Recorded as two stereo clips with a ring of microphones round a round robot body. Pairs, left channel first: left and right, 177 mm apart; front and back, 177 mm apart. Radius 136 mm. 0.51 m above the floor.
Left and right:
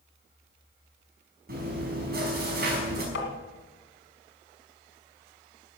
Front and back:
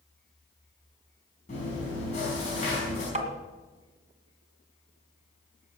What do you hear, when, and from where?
1.5 s chewing: 60° right, 5.5 m
3.1 s tapping: 135° left, 2 m